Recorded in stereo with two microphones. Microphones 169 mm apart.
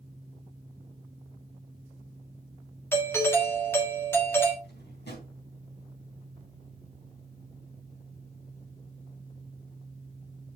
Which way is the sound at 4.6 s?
80° left.